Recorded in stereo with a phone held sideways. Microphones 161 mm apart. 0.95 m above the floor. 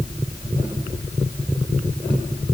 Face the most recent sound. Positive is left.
No sound to turn to.